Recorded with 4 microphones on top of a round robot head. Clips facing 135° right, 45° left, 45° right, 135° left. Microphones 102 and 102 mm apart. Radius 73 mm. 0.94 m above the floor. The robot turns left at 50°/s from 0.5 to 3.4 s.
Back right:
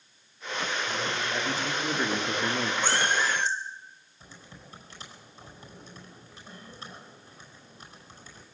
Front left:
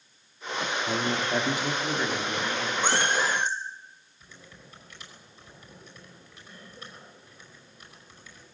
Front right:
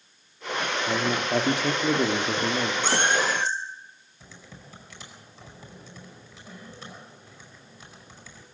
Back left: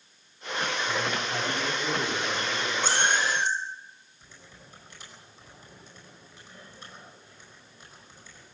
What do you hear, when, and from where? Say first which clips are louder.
0.9 s a man speaking: front left 4 dB, front right 4 dB; 5° left, 2 m; by 2.7 s 85° right, 2 m
2.8 s a cat meowing: front left 2 dB, front right 1 dB; 120° left, 4 m; by 3.5 s 95° left, 4 m
4.2 s typing on a keyboard: back right 2 dB, front right 6 dB; 70° right, 5 m